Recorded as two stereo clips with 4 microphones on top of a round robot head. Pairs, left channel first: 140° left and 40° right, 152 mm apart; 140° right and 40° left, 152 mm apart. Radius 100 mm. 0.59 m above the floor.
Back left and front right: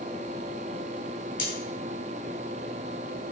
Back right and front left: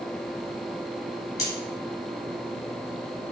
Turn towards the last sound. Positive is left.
turn(degrees=175)